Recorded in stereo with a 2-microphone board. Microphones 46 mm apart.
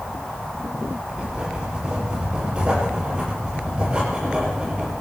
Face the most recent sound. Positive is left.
turn(degrees=-20)  # may be behind; listen again after turning